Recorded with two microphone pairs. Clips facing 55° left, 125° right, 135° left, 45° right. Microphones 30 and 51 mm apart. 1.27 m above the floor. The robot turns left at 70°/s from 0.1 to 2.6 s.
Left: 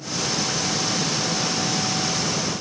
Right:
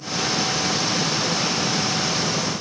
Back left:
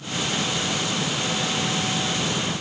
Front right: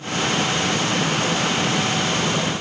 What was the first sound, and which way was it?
Only background noise.